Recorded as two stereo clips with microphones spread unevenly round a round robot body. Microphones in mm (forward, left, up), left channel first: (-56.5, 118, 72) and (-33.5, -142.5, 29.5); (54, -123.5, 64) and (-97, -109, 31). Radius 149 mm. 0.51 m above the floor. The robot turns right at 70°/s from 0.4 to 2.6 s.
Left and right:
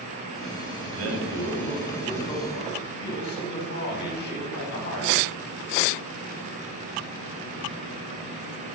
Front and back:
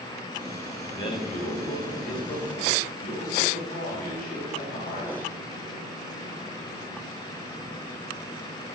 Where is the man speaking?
80° right, 2.5 m; by 5.1 s 40° left, 2.5 m.